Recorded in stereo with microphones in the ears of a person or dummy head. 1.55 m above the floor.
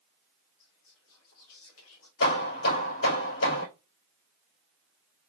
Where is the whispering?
75° left (ahead or behind), 1.5 m.